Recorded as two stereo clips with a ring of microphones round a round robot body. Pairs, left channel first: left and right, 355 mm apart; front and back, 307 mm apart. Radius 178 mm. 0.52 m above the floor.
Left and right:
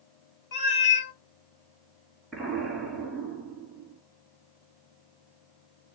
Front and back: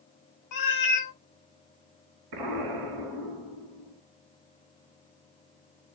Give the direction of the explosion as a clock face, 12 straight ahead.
6 o'clock.